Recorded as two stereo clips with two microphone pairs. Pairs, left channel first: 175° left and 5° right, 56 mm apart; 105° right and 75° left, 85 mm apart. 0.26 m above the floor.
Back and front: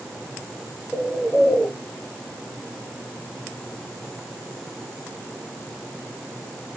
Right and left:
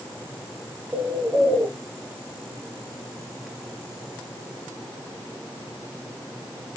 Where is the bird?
155° left, 1.3 m.